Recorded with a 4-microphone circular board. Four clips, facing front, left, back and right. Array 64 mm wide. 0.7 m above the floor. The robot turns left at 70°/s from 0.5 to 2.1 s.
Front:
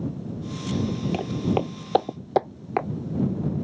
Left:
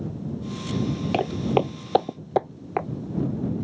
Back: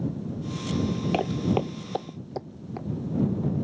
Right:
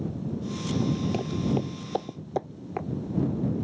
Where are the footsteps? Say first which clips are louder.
Left 5 dB, even; 115° left; by 2.9 s 30° left.